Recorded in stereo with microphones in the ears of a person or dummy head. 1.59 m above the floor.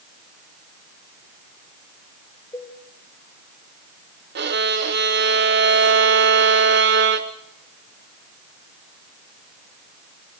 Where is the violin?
60° right (ahead or behind), 1.3 m.